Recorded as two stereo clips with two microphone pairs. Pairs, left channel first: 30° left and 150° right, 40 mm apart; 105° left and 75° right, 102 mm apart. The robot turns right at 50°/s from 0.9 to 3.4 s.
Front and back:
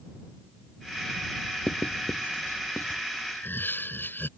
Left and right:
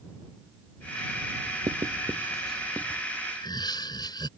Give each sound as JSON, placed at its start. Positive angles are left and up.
{"t": 1.7, "sound": "writing", "azimuth_deg": -25}
{"t": 3.4, "sound": "laughter", "azimuth_deg": 55}